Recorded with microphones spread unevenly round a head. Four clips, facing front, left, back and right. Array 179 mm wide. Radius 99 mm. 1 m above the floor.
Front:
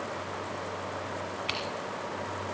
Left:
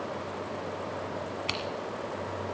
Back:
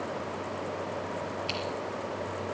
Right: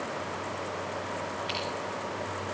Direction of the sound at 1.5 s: 100° left.